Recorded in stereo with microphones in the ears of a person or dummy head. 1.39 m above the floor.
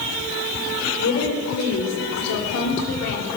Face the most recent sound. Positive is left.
turn(degrees=65)  # may be behind; listen again after turning